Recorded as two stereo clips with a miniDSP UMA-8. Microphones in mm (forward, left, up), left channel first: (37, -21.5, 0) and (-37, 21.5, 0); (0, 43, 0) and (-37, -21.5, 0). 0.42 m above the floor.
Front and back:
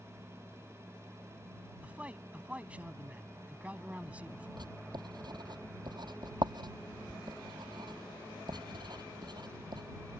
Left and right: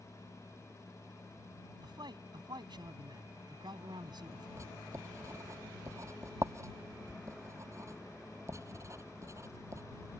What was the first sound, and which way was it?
A man speaking, 135° right.